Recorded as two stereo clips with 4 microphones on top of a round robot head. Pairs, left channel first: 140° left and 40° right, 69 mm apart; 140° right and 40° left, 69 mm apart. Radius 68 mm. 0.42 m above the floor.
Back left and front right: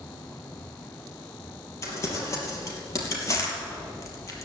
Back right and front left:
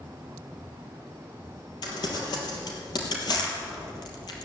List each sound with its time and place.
1.8 s crumpling: 170° right, 3 m